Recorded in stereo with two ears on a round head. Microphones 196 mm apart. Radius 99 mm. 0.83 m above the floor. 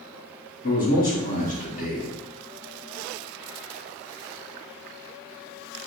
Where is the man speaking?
40° left (ahead or behind), 1.5 m.